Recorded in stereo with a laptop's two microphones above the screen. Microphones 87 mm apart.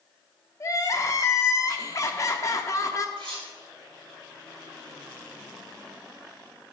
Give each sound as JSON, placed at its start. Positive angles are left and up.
{"t": 0.6, "sound": "crying", "side_deg": 35, "distance_m": 0.8}
{"t": 3.2, "sound": "cutlery clinking", "side_deg": -55, "distance_m": 4.0}